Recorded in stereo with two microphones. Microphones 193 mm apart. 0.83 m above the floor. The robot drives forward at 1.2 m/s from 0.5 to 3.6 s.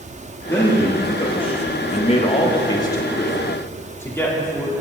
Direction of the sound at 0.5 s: 15° left (ahead or behind).